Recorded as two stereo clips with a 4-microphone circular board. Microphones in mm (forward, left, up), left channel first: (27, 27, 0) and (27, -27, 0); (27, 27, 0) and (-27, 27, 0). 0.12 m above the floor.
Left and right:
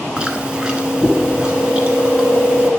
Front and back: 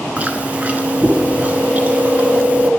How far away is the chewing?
About 0.9 m.